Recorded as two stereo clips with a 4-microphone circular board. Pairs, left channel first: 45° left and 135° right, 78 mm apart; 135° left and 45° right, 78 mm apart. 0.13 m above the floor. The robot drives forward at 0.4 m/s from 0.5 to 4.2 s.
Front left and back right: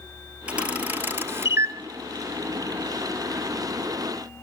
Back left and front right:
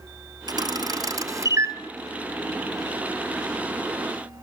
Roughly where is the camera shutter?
Ahead right.